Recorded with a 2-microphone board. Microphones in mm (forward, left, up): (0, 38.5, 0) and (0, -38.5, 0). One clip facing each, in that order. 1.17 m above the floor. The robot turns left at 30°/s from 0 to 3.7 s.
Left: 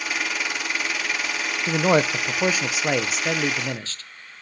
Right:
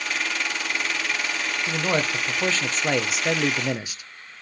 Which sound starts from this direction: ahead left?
A man speaking, at 1.7 s.